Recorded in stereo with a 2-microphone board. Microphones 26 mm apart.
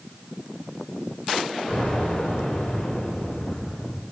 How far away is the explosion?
About 5.5 m.